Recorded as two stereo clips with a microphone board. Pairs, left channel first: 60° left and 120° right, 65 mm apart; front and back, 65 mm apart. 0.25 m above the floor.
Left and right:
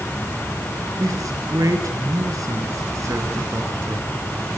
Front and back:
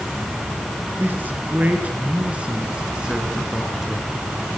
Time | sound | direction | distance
1.0 | a man speaking | 125° right | 4 m